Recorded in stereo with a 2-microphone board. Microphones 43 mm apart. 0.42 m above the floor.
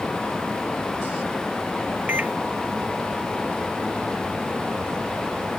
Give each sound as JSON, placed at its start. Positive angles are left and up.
{"t": 2.1, "sound": "a microwave", "side_deg": -40}